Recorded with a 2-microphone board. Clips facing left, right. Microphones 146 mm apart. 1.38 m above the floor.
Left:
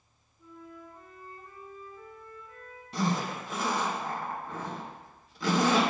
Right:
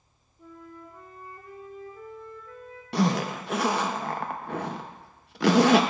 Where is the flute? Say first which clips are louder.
Right 2 dB; 70° right (ahead or behind), 1.0 m.